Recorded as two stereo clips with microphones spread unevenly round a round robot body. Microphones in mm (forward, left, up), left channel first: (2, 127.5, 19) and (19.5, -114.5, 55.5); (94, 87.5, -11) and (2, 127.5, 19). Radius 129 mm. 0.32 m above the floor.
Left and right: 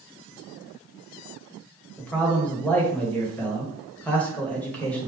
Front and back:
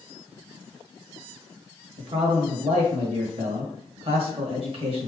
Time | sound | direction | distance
2.0 | a man speaking | 165° left | 1.4 m